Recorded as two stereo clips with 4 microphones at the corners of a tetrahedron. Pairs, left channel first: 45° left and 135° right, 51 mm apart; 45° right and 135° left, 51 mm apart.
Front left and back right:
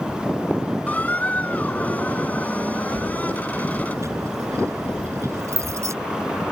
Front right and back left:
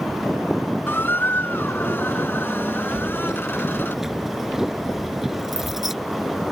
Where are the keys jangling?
145° right.